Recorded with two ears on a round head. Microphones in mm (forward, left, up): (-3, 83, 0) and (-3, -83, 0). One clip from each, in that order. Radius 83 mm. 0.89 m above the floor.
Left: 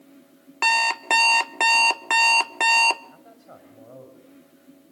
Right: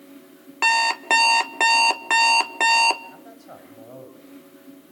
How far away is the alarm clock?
About 0.7 m.